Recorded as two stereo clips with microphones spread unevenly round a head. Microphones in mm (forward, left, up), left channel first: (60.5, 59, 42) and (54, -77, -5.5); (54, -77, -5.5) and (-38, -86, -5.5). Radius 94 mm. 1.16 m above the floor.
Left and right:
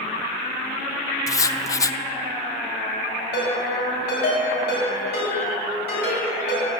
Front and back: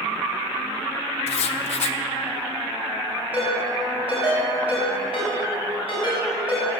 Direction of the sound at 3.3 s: 105° left.